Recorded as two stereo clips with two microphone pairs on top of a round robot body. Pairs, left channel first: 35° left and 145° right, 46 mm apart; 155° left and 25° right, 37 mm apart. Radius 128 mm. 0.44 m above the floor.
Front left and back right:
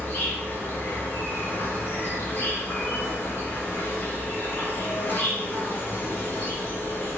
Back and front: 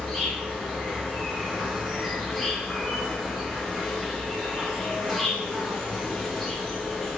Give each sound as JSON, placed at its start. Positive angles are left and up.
{"t": 0.0, "sound": "an insect", "azimuth_deg": 70, "distance_m": 1.3}